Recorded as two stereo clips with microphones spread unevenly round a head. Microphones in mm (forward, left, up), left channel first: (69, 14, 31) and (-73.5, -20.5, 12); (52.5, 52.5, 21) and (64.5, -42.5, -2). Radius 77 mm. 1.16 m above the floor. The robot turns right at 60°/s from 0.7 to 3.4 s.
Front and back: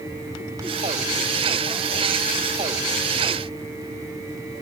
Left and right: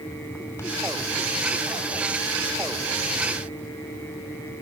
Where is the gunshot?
I don't hear a gunshot.